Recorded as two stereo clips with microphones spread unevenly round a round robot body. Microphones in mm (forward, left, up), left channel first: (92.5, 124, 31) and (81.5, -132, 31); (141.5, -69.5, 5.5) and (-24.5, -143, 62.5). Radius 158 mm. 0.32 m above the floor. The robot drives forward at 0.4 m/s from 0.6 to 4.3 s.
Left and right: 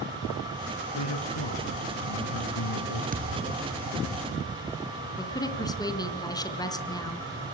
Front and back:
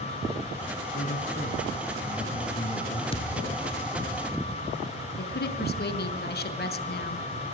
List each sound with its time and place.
0.9 s a man speaking: 75° left, 4 m; by 3.0 s 85° left, 4 m
3.1 s a thud: 35° right, 3 m
5.2 s a woman speaking: 10° left, 4 m